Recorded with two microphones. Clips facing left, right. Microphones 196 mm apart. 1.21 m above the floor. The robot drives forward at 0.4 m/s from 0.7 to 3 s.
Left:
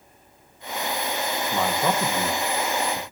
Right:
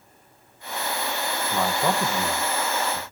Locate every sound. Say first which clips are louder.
1.4 s a man speaking: even; centre (ahead or behind), 1.3 m